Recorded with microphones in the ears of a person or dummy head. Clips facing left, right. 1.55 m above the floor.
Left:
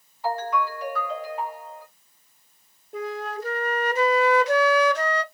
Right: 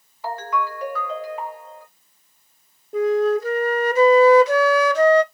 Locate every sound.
0.2 s a ringtone: 60° right (ahead or behind), 1.6 m
2.9 s a flute: 65° right (ahead or behind), 0.6 m